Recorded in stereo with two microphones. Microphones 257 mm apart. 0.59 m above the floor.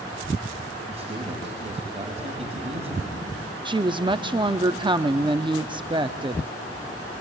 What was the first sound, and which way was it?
A man speaking, 25° right (ahead or behind).